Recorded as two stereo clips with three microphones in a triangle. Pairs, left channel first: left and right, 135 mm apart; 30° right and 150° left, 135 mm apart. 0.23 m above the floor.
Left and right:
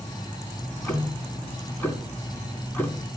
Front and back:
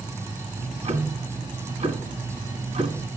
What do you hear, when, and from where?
0.6 s ticking: 160° left, 1.9 m